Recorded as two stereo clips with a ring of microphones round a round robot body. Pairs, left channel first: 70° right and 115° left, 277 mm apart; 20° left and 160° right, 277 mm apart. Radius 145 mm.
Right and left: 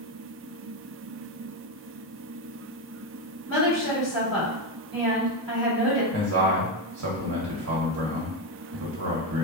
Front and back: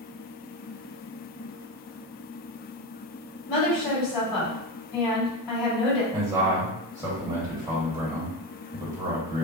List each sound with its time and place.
3.5 s a woman speaking: 35° left, 1.9 m
6.1 s a man speaking: 125° left, 1.7 m